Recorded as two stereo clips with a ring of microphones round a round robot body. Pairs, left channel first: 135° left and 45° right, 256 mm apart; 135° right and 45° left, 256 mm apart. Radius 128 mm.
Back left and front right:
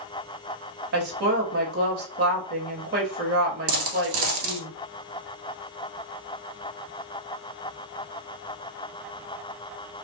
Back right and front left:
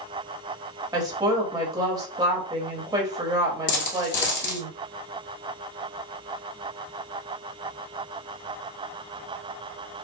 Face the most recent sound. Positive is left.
turn(degrees=-85)